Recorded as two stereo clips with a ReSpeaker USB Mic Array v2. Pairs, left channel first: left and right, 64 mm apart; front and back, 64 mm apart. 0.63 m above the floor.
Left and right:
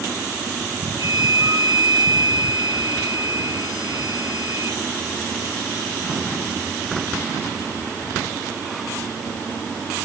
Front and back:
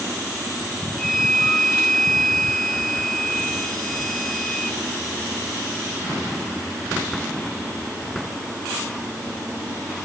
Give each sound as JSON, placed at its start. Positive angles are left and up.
{"t": 1.0, "sound": "a flute", "azimuth_deg": -85, "distance_m": 1.8}